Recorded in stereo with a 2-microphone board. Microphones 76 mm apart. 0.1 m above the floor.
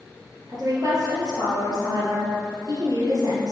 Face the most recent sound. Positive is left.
turn(degrees=-55)  # may be behind; listen again after turning